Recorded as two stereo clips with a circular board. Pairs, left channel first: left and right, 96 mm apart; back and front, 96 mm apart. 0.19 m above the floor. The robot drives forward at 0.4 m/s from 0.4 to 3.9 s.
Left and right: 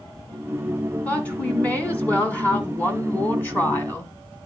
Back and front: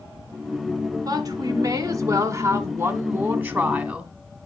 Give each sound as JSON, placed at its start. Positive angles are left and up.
{"t": 1.1, "sound": "a woman speaking", "azimuth_deg": 20, "distance_m": 2.0}